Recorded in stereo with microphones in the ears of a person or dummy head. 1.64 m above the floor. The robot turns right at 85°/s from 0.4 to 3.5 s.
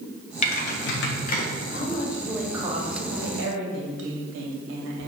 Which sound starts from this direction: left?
Typing on a keyboard, at 0.4 s.